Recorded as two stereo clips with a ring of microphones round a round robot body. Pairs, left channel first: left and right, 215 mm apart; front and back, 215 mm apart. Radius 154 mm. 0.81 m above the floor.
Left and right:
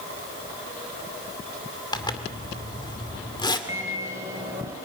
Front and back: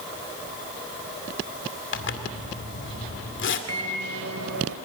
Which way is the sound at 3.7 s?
170° right.